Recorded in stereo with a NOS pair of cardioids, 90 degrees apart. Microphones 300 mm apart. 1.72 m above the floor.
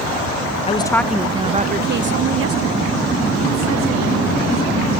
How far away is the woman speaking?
About 0.7 m.